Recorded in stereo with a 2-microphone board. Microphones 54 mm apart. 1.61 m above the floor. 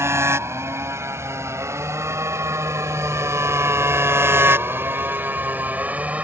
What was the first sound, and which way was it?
A motorcycle, 55° right (ahead or behind).